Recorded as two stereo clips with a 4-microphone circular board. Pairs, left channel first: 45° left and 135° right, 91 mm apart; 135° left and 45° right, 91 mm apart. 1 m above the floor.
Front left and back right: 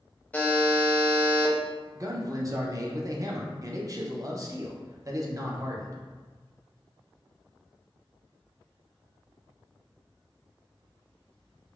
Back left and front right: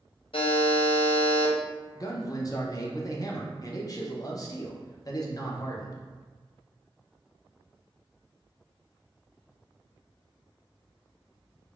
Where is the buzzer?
120° left, 0.5 m.